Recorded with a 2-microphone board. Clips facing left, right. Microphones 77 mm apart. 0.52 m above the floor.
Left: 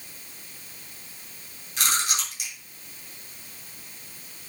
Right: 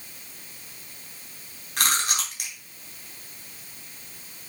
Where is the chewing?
60° right (ahead or behind), 3 m.